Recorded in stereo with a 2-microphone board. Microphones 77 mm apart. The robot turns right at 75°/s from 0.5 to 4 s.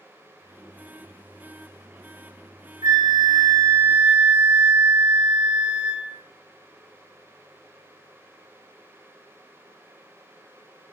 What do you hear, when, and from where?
2.8 s a flute: 105° right, 0.5 m; by 6.2 s 15° right, 0.5 m